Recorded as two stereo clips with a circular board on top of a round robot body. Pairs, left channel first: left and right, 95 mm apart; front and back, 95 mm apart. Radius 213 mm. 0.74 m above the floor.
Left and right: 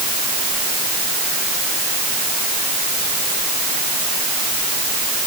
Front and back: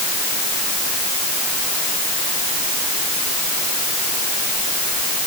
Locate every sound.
Only background noise.